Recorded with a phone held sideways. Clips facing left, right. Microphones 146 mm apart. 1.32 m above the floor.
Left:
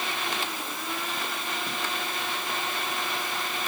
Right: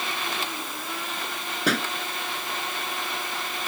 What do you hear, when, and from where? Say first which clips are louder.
1.7 s a pop: right 8 dB; 90° right